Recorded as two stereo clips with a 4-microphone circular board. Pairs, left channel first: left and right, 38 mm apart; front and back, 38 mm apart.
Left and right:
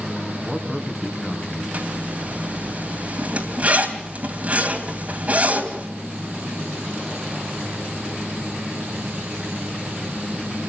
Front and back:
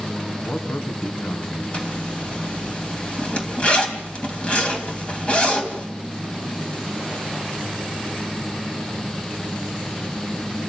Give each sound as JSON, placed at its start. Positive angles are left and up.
{"t": 0.4, "sound": "a man speaking", "azimuth_deg": 0, "distance_m": 2.5}
{"t": 1.7, "sound": "a zipper", "azimuth_deg": -50, "distance_m": 2.5}